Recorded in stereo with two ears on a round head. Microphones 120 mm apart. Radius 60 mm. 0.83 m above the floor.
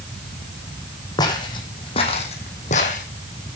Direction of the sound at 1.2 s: 30° left (ahead or behind).